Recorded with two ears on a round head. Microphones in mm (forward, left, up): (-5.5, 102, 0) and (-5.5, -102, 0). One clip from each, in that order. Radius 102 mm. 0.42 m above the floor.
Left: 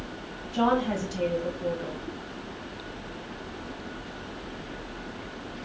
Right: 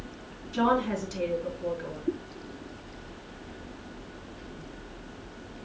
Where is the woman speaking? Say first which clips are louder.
Left 1 dB; 10° right (ahead or behind), 2.5 m.